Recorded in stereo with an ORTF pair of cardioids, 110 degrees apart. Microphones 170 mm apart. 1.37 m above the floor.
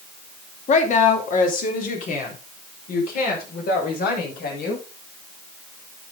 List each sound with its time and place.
0.7 s a woman speaking: 45° left, 2.5 m; by 4.8 s 65° left, 6.5 m